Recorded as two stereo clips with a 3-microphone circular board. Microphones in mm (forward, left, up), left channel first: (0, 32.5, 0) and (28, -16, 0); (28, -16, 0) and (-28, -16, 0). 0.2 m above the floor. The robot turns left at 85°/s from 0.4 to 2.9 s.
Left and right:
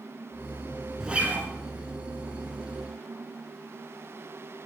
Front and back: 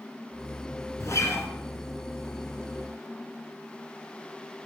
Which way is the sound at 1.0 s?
20° left.